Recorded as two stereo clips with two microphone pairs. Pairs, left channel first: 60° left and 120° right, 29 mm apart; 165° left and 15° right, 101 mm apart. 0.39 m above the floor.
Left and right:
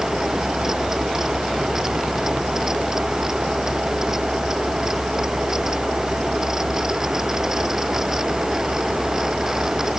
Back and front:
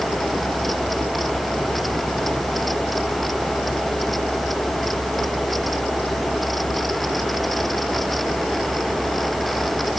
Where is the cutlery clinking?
No cutlery clinking in this recording.